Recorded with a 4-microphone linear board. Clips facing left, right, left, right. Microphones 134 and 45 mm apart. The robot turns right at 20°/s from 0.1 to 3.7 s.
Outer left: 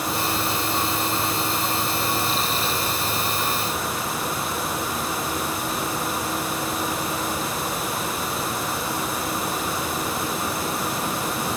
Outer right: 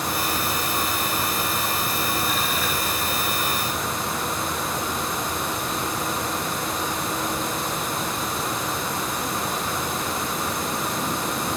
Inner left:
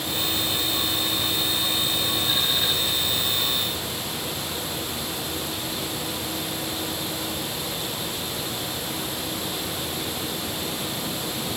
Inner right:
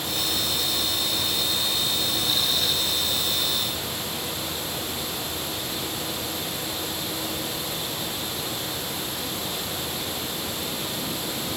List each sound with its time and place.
Only background noise.